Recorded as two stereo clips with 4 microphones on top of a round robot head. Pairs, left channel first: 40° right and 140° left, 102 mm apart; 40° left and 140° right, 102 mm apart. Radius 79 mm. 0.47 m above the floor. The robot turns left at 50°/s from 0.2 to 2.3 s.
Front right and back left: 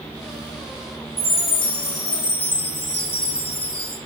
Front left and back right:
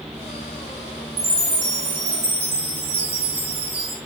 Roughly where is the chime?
Ahead right.